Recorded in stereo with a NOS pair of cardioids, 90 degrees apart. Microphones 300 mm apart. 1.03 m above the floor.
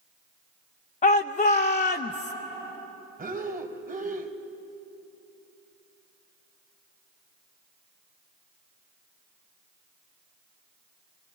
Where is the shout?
25° left, 0.6 m.